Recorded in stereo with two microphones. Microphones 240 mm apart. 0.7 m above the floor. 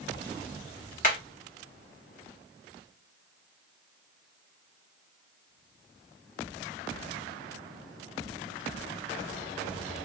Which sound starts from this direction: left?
Hammering, at 1.0 s.